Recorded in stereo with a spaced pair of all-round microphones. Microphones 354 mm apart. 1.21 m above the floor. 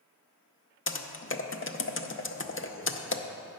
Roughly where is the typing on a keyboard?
Left.